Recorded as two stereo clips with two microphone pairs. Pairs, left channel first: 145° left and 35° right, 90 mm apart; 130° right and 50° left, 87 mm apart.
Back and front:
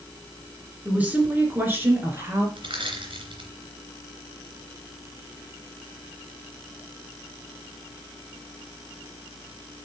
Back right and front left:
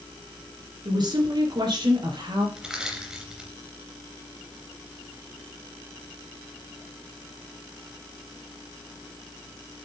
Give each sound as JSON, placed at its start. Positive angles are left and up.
{"t": 0.8, "sound": "a woman speaking", "azimuth_deg": 40, "distance_m": 2.5}
{"t": 2.6, "sound": "crushing", "azimuth_deg": -35, "distance_m": 3.0}